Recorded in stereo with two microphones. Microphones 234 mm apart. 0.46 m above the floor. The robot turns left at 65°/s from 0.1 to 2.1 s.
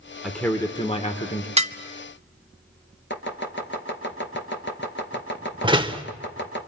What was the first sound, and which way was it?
A man speaking, straight behind.